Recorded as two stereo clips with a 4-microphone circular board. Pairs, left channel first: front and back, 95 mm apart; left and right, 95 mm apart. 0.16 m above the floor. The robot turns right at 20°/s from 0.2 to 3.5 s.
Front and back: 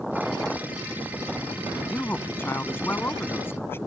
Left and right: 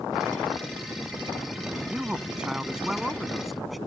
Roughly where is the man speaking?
Ahead right.